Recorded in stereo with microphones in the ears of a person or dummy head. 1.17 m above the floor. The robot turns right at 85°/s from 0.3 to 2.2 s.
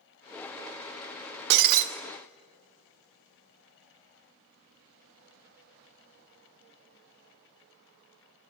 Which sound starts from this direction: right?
Breaking glass, at 1.5 s.